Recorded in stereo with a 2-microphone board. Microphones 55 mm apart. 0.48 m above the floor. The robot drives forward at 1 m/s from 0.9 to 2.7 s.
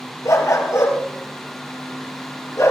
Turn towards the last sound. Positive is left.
turn(degrees=65)  # may be behind; listen again after turning